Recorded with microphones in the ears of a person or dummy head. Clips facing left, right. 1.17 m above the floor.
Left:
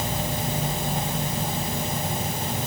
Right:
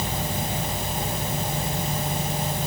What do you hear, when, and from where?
Only background noise.